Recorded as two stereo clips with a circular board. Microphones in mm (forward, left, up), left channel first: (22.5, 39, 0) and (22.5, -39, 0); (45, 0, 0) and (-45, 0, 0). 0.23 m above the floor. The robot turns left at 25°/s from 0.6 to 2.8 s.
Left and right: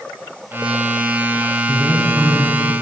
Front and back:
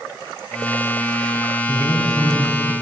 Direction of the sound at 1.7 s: 30° right.